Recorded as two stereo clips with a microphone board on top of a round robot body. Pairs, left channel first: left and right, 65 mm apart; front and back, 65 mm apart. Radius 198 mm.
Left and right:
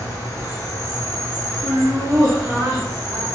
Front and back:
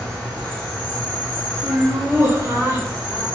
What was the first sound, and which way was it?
An insect, 130° left.